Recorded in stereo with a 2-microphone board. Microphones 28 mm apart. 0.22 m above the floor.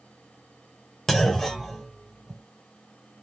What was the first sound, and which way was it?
A clunk, 15° left (ahead or behind).